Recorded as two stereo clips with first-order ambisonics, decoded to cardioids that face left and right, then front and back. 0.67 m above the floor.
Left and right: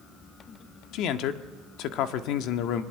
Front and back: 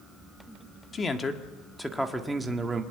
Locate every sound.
0.9 s a man speaking: 65° left, 1.6 m; by 2.8 s 110° left, 1.6 m